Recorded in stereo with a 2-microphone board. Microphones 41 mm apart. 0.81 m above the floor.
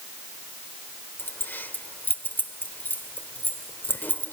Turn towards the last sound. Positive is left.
turn(degrees=55)  # may be behind; listen again after turning